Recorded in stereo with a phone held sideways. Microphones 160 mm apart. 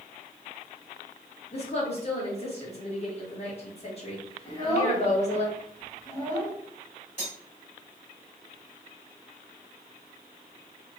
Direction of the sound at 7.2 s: 45° left (ahead or behind).